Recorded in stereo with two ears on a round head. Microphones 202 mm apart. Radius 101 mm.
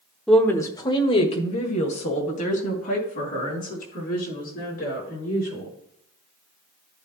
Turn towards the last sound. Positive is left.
turn(degrees=40)  # may be behind; listen again after turning